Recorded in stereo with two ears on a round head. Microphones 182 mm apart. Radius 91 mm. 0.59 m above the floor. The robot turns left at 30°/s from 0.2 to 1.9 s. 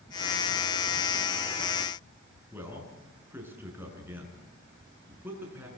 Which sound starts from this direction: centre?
A man speaking, at 2.5 s.